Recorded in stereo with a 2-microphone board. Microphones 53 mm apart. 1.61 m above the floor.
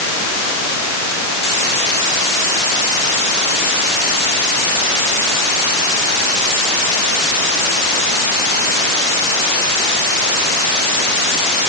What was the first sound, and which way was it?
Only background noise.